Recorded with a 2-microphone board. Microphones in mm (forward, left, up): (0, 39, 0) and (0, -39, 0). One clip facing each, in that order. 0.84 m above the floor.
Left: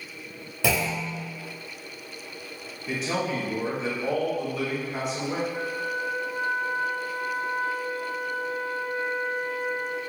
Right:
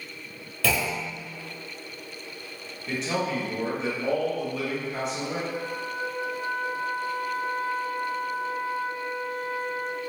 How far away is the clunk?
About 0.7 m.